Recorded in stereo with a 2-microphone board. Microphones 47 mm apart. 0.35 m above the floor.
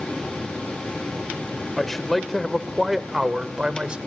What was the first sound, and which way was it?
A man speaking, 10° left (ahead or behind).